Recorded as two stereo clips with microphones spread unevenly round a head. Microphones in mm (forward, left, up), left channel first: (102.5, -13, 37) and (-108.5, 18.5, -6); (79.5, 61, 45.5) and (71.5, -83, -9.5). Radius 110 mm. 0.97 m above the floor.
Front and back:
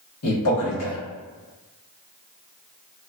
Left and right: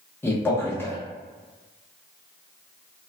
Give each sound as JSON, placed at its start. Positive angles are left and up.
{"t": 0.2, "sound": "a man speaking", "azimuth_deg": 0, "distance_m": 1.1}